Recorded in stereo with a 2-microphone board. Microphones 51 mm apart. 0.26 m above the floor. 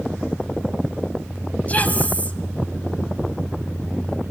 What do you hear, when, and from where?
1.7 s a woman speaking: 30° left (ahead or behind), 1.7 m